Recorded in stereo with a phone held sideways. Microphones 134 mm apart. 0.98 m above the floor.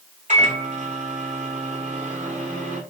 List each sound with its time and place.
0.3 s a microwave: 60° right (ahead or behind), 3.5 m